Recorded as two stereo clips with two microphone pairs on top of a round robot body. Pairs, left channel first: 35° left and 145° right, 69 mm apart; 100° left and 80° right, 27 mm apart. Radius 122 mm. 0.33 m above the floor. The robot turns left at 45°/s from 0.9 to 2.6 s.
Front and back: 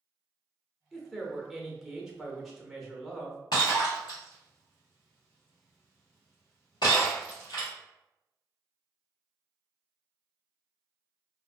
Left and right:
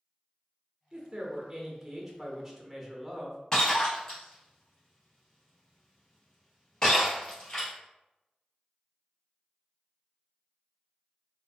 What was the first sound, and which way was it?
A woman speaking, 95° right.